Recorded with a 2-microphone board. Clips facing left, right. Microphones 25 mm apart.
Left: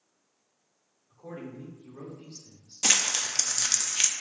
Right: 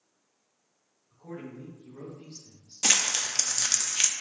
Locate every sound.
1.1 s a man speaking: 55° left (ahead or behind), 2.5 m
2.8 s crumpling: 10° right (ahead or behind), 0.6 m